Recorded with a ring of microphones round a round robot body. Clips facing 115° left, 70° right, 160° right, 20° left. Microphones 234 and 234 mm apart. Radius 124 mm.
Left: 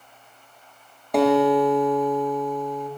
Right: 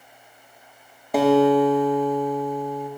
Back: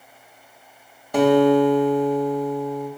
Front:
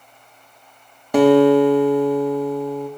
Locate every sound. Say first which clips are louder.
1.1 s a guitar: right 2 dB, front 4 dB; 20° left, 1.6 m